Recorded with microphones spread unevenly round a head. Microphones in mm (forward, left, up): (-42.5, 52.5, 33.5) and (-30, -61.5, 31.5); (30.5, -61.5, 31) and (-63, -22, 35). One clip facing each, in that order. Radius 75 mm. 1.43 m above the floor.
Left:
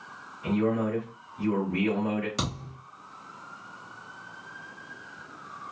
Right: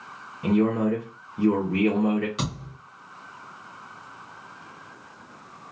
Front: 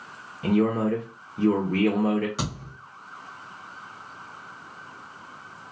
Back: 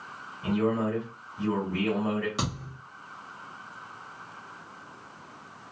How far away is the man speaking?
About 0.7 m.